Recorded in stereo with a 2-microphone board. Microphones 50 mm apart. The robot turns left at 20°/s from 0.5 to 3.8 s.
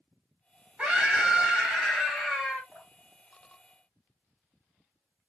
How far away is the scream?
About 1.2 m.